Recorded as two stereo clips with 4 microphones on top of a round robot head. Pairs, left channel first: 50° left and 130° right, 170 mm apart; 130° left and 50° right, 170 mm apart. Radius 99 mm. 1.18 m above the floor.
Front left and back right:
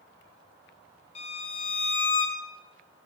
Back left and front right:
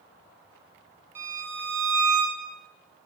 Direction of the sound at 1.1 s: 20° left.